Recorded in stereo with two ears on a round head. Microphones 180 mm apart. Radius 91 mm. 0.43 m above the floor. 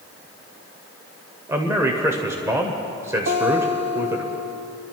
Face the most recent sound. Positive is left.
turn(degrees=-60)  # may be behind; listen again after turning